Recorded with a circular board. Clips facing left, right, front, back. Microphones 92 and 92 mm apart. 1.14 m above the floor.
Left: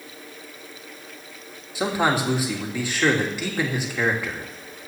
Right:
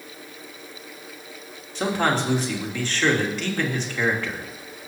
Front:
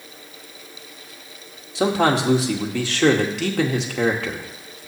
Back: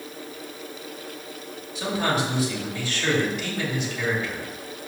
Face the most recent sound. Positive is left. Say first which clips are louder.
# left 1 dB, front 6 dB
turn(degrees=10)